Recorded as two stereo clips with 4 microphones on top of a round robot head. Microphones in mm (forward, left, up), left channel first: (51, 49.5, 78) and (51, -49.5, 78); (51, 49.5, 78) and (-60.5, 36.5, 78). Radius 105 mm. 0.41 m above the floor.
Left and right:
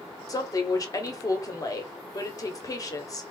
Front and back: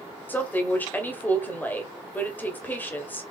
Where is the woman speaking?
70° left, 1.3 m.